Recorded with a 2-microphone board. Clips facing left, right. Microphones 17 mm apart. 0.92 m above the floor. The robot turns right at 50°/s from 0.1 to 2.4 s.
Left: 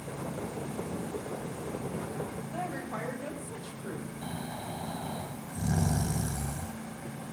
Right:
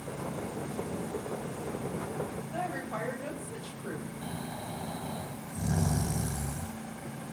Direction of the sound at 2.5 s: 10° right (ahead or behind).